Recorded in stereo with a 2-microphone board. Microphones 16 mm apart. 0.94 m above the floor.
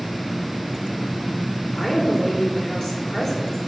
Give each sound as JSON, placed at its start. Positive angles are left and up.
{"t": 1.8, "sound": "a woman speaking", "side_deg": 35, "distance_m": 3.5}